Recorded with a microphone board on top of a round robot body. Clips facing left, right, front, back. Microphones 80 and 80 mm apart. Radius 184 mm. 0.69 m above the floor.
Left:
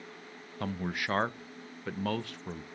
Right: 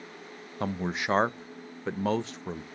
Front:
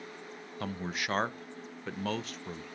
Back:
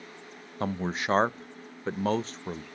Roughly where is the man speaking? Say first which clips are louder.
Right 4 dB, back 6 dB; behind right.